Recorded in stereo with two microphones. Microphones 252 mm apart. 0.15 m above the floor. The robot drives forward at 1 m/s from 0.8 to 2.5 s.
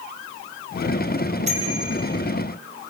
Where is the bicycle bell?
25° right (ahead or behind), 4.5 m; by 2.0 s 30° right (ahead or behind), 4 m.